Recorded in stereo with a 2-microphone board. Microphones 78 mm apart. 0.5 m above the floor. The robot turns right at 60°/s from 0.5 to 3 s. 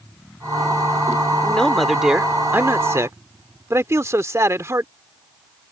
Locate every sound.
1.4 s a man speaking: 155° left; by 4.9 s 110° right